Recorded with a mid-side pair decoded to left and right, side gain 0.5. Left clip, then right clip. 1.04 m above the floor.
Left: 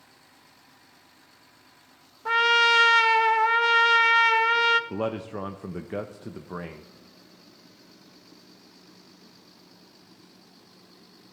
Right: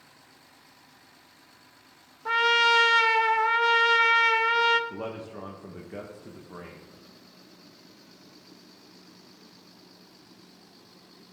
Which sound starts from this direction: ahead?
A trumpet, at 2.2 s.